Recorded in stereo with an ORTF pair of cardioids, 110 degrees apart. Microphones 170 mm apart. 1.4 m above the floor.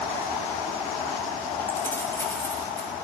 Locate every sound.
1.7 s keys jangling: 15° left, 5.5 m